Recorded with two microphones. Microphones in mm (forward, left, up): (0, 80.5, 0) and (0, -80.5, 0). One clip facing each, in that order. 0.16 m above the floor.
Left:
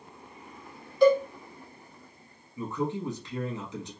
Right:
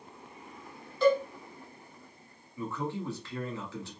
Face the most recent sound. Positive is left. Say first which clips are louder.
# left 4 dB
turn(degrees=20)  # may be behind; listen again after turning